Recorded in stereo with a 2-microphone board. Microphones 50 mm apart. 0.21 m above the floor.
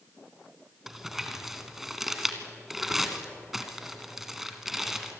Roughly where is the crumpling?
Centre.